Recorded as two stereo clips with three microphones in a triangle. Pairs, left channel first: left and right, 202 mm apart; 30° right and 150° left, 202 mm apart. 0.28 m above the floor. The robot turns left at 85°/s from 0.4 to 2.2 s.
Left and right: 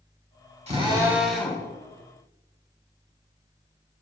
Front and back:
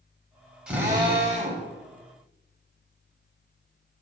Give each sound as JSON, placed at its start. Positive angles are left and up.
{"t": 0.7, "sound": "a drill", "azimuth_deg": -125, "distance_m": 1.9}